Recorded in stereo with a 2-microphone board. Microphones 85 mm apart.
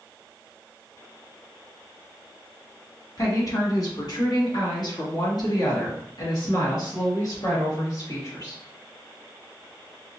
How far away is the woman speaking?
About 1.7 m.